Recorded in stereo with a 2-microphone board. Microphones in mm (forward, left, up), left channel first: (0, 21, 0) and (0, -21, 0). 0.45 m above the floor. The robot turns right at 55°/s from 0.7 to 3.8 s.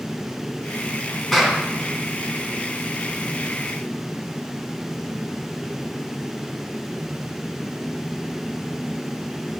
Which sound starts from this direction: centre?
A clap, at 1.3 s.